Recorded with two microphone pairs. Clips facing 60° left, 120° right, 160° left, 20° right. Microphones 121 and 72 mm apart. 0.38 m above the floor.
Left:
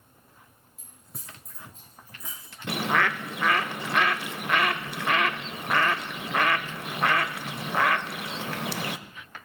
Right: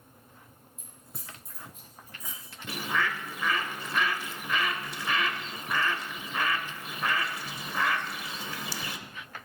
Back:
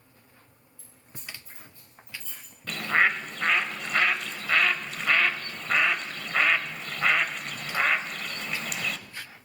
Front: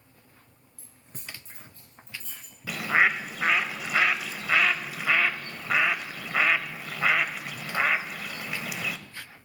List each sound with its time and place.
0.8 s keys jangling: 25° right, 6 m; by 2.5 s 50° right, 6.5 m
2.7 s a bird: 65° left, 0.5 m